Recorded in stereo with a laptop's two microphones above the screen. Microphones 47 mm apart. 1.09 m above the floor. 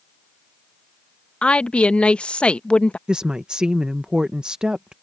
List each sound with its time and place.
1.4 s a woman speaking: 25° left (ahead or behind)
3.1 s a woman speaking: 15° right (ahead or behind)